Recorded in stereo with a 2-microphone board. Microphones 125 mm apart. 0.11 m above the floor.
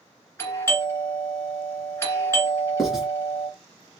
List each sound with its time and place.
0.4 s a doorbell: 20° left (ahead or behind), 1.6 m
2.8 s writing: centre (ahead or behind), 1.8 m